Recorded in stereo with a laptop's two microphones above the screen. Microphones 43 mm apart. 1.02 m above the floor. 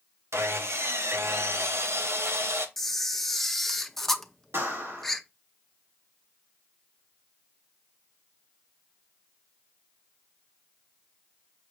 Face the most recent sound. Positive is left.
turn(degrees=-65)  # may be behind; listen again after turning